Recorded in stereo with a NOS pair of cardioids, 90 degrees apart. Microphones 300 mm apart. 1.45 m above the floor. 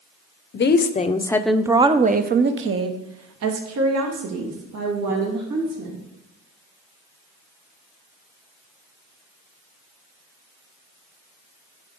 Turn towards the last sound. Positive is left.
turn(degrees=-75)